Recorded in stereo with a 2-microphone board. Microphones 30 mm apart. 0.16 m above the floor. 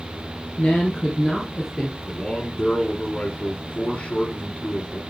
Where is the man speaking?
35° left (ahead or behind), 1.8 m.